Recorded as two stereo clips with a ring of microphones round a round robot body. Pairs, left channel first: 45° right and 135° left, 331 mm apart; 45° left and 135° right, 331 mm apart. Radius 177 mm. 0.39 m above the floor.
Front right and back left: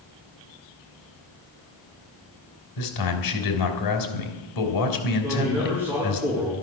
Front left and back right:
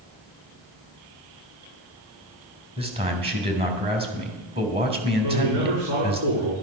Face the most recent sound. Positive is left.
turn(degrees=-140)